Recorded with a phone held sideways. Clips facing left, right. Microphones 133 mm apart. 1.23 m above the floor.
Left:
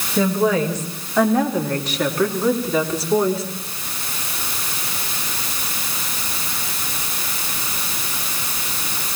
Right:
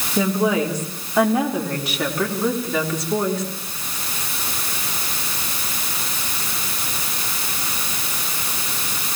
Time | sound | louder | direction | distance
0.2 | a woman speaking | left 1 dB | 15° right (ahead or behind) | 4.5 m